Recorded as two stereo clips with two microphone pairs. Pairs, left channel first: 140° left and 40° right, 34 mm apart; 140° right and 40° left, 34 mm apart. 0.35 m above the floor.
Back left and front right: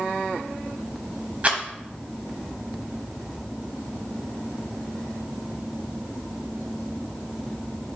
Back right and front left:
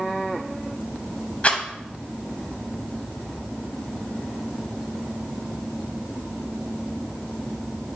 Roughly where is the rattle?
Right.